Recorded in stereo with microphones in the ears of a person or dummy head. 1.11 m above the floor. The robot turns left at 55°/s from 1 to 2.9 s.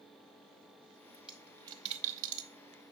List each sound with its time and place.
1.1 s a dropped coin: centre (ahead or behind), 0.8 m; by 2.5 s 60° right (ahead or behind), 0.8 m